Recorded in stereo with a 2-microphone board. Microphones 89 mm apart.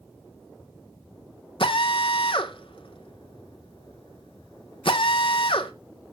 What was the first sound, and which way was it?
A drill, 85° left.